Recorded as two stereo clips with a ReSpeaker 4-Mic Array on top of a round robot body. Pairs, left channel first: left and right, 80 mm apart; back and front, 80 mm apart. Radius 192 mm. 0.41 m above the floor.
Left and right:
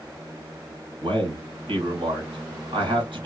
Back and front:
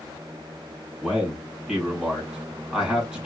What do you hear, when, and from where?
1.0 s a man speaking: 80° right, 2 m